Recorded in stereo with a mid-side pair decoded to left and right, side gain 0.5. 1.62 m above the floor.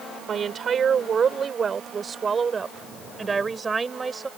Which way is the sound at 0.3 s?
50° right.